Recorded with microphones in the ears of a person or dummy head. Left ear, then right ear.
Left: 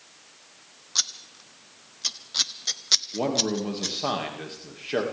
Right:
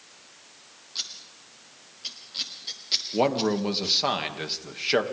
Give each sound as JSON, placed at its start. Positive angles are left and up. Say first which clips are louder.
{"t": 0.9, "sound": "scissors", "louder": "left 7 dB", "side_deg": 50, "distance_m": 0.9}
{"t": 3.1, "sound": "a man speaking", "louder": "right 2 dB", "side_deg": -40, "distance_m": 2.5}